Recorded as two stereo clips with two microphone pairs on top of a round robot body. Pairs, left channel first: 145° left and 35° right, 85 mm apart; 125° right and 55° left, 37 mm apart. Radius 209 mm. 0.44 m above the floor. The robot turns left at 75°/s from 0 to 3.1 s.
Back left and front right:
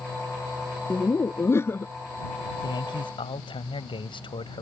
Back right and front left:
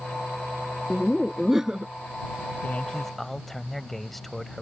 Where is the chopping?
I don't hear chopping.